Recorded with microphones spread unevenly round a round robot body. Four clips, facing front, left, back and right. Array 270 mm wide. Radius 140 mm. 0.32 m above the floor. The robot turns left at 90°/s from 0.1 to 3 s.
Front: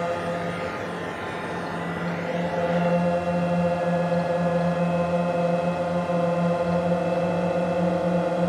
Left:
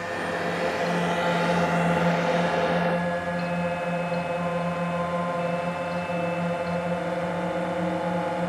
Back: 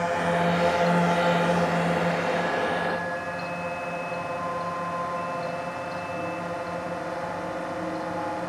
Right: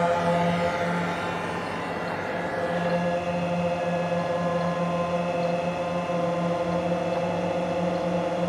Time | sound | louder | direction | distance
0.0 | a drone | right 6 dB, back 3 dB | 100° right | ?